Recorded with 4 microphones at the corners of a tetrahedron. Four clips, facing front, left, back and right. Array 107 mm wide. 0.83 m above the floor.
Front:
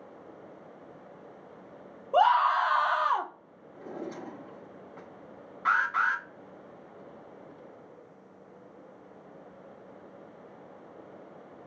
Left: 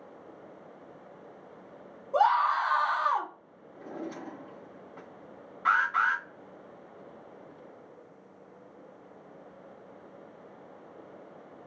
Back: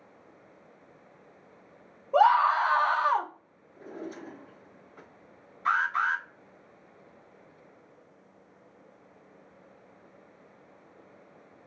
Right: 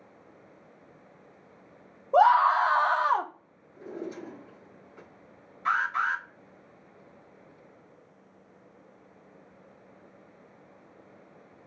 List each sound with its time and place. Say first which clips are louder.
2.1 s a scream: right 4 dB, back 1 dB; 70° right, 0.8 m
3.8 s a drawer: right 1 dB, front 2 dB; 40° left, 3 m
5.7 s an alarm: left 2 dB, even; 45° left, 2.5 m